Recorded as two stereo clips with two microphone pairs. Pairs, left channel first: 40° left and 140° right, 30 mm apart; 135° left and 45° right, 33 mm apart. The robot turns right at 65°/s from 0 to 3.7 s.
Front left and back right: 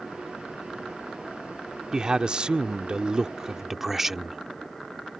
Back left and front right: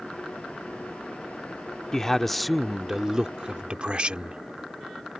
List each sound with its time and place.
1.9 s a man speaking: 175° left; by 4.4 s 70° right